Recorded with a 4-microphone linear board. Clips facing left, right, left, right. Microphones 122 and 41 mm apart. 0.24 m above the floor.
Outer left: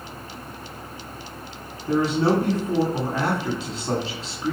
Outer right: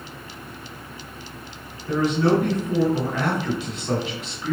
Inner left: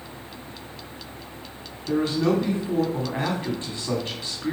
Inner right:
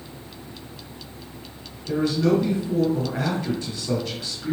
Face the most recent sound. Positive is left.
turn(degrees=35)  # may be behind; listen again after turning